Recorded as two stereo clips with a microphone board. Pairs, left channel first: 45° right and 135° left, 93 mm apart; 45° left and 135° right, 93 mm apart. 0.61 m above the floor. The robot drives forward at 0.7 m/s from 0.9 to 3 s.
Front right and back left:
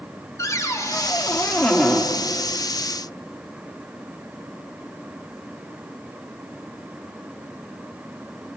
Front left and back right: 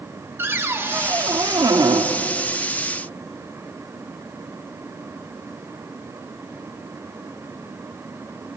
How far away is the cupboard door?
About 1.2 m.